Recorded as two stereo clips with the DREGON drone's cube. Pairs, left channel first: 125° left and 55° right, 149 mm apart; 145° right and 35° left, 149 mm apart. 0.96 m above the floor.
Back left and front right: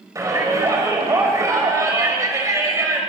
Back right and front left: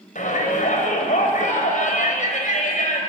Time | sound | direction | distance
0.1 | a shout | 125° right | 5 m